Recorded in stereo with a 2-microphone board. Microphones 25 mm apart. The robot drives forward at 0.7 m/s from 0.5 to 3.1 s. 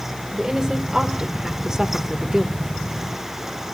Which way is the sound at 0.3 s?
15° right (ahead or behind).